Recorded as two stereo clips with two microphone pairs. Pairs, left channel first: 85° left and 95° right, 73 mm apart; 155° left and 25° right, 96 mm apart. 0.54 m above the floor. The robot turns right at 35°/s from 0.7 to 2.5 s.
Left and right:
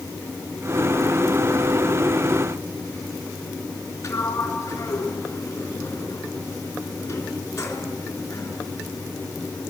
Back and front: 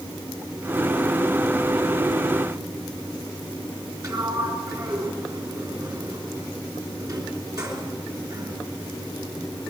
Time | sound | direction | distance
4.0 | a sliding door | 25° left | 3.5 m